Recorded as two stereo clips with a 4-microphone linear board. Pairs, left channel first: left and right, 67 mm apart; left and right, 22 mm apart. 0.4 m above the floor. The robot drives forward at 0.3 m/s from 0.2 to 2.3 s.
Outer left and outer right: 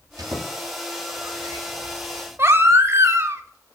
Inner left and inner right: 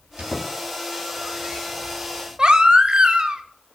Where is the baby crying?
40° right (ahead or behind), 0.7 m.